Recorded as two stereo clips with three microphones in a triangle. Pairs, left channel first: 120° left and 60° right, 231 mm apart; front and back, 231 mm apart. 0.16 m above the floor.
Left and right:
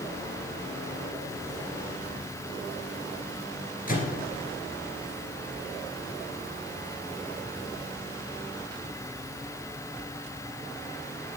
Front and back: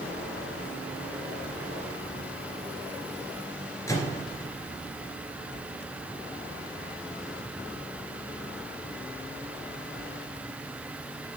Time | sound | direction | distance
3.9 | a microwave | 75° left | 2.5 m